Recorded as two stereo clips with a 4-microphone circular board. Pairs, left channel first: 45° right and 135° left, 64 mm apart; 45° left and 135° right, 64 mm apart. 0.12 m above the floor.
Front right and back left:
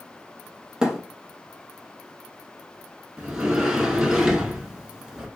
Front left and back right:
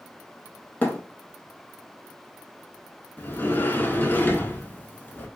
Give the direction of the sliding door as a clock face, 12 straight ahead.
10 o'clock.